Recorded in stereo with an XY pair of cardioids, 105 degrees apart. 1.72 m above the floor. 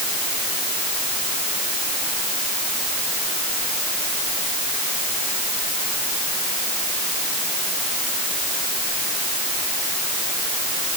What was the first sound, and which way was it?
Only background noise.